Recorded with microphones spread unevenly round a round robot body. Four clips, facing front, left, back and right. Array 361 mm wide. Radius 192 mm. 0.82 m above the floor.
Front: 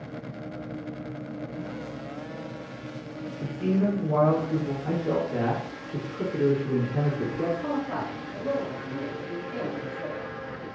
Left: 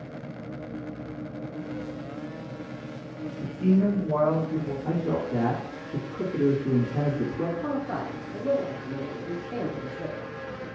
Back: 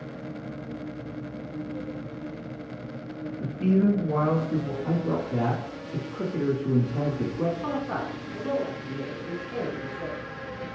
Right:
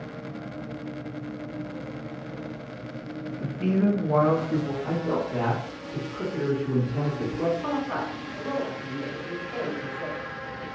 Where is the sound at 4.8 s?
125° left, 1.7 m.